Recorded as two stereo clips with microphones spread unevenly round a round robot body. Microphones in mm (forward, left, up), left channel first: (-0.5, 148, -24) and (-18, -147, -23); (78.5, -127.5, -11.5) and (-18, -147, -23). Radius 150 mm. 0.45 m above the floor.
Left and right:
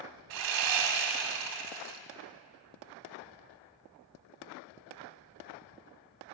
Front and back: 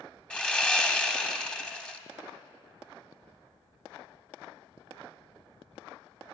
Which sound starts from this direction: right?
Sawing, at 0.3 s.